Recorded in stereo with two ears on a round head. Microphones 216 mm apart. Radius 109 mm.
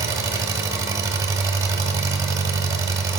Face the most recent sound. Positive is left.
turn(degrees=-15)  # may be behind; listen again after turning